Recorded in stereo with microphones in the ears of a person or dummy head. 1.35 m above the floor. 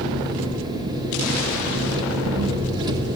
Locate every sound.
0.0 s an engine running: 20° right (ahead or behind), 1.6 m